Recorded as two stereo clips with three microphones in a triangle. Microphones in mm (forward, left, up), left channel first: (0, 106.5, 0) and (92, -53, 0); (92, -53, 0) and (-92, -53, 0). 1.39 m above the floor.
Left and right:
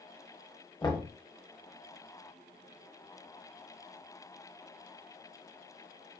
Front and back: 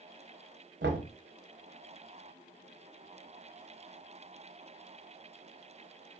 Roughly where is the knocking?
Behind.